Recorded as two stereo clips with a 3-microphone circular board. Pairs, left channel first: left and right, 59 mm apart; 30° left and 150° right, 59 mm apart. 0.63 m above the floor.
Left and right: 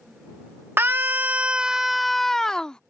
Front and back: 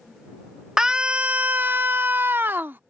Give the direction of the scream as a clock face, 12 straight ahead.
2 o'clock.